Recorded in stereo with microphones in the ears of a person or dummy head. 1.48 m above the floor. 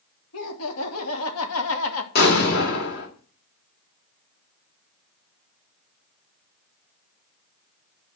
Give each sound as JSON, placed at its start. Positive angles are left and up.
{"t": 0.3, "sound": "laughter", "side_deg": 80, "distance_m": 3.0}
{"t": 2.1, "sound": "an explosion", "side_deg": 60, "distance_m": 2.5}